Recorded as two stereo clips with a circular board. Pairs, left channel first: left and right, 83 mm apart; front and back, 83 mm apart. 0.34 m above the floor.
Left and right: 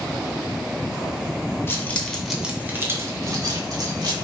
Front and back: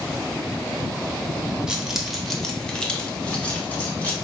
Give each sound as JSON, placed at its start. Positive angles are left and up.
{"t": 1.7, "sound": "keys jangling", "azimuth_deg": 110, "distance_m": 0.6}